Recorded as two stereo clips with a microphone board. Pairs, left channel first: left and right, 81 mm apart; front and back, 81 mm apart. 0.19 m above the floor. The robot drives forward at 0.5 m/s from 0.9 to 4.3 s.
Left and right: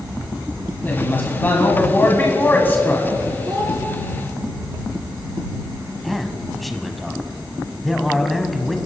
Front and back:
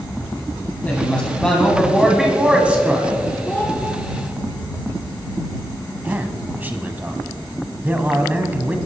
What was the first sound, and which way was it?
A woman speaking, 50° left.